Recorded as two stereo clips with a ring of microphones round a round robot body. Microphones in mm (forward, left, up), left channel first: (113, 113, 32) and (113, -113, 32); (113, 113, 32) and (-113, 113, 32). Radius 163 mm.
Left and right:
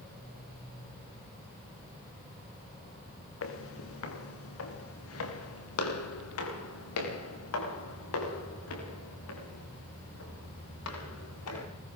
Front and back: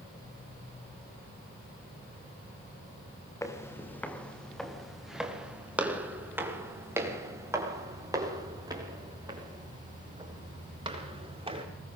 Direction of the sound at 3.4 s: 75° left.